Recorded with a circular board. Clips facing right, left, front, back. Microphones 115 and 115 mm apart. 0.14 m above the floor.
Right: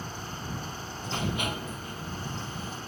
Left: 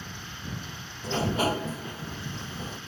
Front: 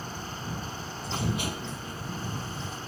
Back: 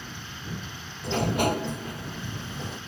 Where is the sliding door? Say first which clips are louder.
Left 6 dB, back 8 dB; 145° left.